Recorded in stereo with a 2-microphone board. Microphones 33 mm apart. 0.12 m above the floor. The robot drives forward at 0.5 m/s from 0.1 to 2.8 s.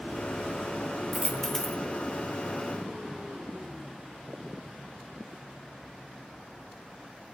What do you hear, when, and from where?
1.1 s a dropped coin: 15° left (ahead or behind), 0.8 m; by 1.8 s 10° left (ahead or behind), 1.1 m